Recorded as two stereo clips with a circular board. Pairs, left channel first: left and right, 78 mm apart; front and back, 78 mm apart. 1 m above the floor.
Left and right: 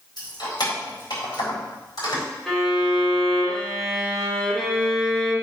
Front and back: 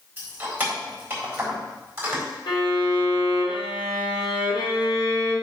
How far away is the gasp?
No gasp in this recording.